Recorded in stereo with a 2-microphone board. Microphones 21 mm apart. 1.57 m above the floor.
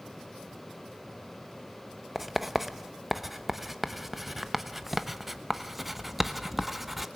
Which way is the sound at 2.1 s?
10° right (ahead or behind).